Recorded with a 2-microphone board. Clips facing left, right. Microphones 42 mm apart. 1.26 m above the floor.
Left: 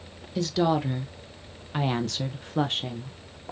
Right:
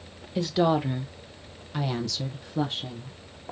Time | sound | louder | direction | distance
0.3 | a woman speaking | right 1 dB | 15° right (ahead or behind) | 1.3 m